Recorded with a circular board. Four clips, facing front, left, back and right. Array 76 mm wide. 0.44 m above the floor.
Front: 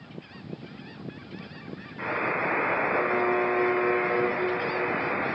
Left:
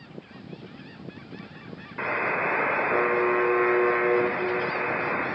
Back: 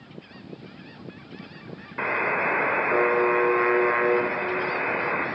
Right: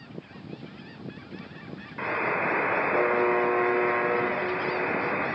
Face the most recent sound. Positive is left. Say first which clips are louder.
# left 1 dB, back 3 dB
turn(degrees=170)